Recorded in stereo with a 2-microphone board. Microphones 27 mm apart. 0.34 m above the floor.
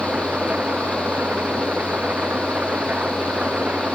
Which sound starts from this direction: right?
An engine running, at 0.0 s.